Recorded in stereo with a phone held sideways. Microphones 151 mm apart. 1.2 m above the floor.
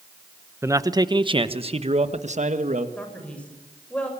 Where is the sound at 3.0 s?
10° left (ahead or behind), 6.5 m.